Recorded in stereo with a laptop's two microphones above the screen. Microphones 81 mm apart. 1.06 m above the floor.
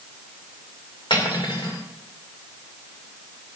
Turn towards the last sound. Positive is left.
turn(degrees=85)